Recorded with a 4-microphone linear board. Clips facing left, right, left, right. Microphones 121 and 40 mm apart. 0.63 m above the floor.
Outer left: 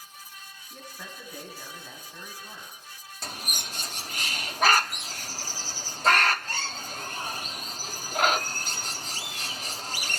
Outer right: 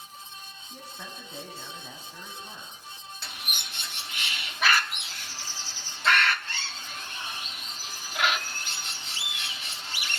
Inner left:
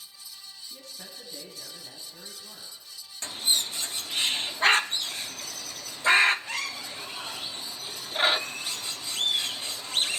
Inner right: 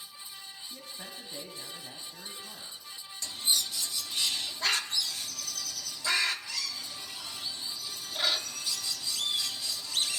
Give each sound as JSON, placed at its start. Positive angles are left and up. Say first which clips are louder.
{"t": 0.7, "sound": "a man speaking", "louder": "outer right 1 dB, inner right 1 dB", "side_deg": -10, "distance_m": 4.5}
{"t": 3.2, "sound": "a bird", "louder": "outer left 5 dB, inner left 3 dB", "side_deg": 40, "distance_m": 0.6}